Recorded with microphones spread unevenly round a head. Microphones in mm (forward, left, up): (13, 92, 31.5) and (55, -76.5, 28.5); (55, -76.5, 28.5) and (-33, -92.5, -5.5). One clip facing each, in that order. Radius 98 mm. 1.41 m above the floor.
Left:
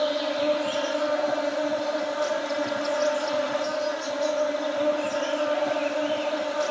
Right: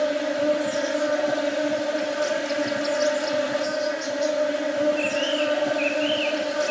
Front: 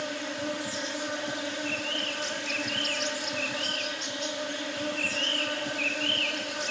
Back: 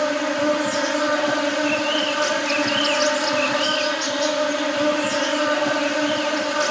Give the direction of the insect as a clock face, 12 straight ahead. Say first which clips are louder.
Right 2 dB, back 13 dB; 5 o'clock.